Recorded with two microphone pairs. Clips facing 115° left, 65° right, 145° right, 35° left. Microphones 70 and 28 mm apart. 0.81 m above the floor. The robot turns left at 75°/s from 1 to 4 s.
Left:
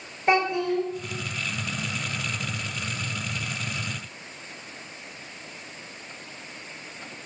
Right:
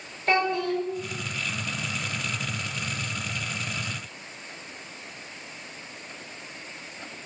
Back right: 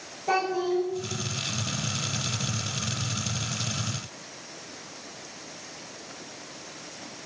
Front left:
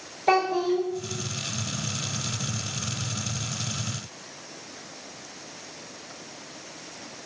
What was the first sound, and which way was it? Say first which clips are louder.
A child speaking: left 2 dB, front left 3 dB; 45° left.